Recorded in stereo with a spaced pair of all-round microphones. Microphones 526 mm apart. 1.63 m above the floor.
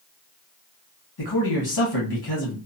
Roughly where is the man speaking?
Left.